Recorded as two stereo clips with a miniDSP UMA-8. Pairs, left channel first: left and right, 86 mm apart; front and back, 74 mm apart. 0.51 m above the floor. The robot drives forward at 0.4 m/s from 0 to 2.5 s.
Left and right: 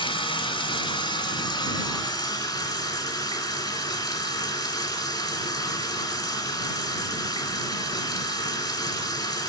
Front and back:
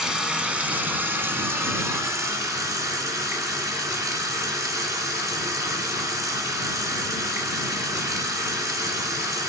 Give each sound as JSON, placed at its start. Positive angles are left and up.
{"t": 0.0, "sound": "running water", "azimuth_deg": 95, "distance_m": 1.2}